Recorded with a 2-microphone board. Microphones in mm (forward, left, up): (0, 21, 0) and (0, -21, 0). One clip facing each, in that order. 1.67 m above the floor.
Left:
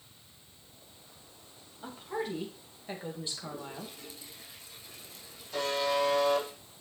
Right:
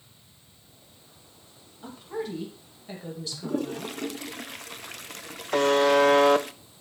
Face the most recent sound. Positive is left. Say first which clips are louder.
# right 10 dB
turn(degrees=-65)  # may be behind; listen again after turning